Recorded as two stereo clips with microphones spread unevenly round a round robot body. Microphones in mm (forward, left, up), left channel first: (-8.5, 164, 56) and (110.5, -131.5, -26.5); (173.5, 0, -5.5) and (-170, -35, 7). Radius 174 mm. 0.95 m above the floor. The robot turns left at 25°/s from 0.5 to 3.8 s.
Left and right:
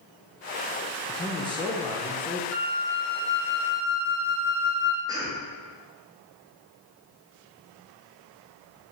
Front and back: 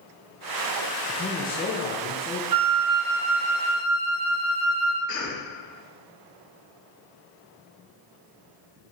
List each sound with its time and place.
1.1 s a man speaking: 30° left, 0.7 m; by 2.4 s straight ahead, 0.7 m
2.5 s a flute: 175° right, 0.7 m; by 5.0 s 155° left, 0.7 m
5.1 s a cough: 5° right, 1.0 m